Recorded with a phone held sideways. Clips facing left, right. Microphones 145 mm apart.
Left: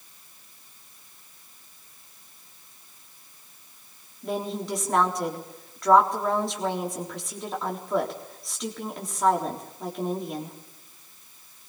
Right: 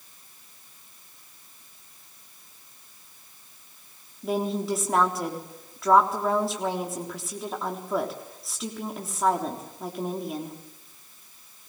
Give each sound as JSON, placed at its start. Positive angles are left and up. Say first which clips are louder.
{"t": 4.2, "sound": "a woman speaking", "louder": "right 3 dB", "side_deg": 0, "distance_m": 3.5}